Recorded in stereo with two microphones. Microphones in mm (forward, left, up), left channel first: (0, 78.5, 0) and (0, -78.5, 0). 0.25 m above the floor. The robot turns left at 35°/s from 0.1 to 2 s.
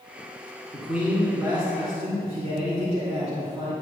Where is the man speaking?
Straight ahead, 3 m; by 3.7 s 45° right, 3 m.